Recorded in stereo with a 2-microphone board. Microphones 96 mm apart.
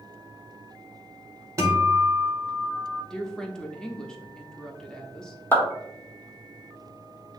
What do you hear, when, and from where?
1.6 s a guitar: 35° right (ahead or behind), 1.2 m
3.1 s a woman speaking: 5° left (ahead or behind), 0.7 m
5.5 s a clap: 20° left (ahead or behind), 1.3 m